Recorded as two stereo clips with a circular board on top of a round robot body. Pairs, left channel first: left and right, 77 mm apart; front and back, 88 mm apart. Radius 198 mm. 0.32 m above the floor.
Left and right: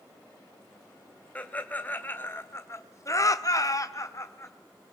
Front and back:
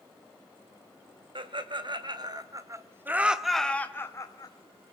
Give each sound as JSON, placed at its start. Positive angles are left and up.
{"t": 1.4, "sound": "laughter", "azimuth_deg": 160, "distance_m": 3.0}